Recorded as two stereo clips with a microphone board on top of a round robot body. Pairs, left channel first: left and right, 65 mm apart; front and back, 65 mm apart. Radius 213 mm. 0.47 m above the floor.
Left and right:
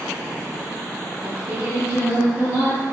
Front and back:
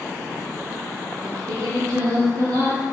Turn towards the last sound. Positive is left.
turn(degrees=-160)